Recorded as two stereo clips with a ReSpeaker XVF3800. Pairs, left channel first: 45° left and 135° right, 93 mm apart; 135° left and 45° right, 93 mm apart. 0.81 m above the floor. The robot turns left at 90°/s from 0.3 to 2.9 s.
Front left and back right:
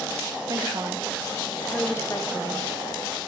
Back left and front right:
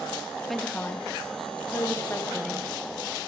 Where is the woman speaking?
135° right, 0.7 m; by 2.7 s 30° left, 0.7 m.